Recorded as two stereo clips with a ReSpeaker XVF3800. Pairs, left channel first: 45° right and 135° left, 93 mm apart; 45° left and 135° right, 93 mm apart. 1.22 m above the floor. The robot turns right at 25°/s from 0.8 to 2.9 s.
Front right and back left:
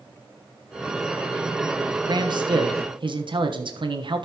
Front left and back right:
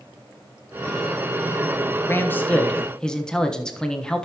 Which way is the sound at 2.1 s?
105° left.